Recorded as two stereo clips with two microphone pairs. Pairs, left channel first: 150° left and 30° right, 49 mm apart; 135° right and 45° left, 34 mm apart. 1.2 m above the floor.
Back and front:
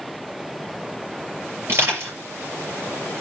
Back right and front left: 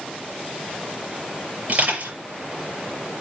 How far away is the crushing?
About 6 m.